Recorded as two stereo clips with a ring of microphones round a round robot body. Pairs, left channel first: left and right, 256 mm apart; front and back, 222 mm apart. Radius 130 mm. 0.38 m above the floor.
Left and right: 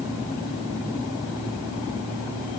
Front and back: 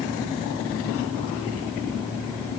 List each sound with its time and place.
Only background noise.